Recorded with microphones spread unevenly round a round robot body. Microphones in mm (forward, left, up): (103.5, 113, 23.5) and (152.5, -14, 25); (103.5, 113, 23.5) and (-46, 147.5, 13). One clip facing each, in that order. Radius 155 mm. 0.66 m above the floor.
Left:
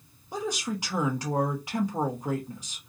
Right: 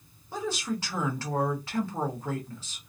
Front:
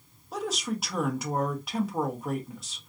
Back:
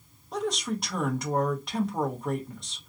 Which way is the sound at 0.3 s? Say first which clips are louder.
Even, back 2 dB; 75° left.